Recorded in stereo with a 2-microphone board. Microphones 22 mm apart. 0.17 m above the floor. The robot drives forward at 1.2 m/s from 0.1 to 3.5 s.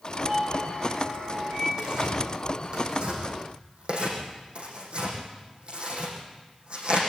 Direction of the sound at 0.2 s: 55° right (ahead or behind).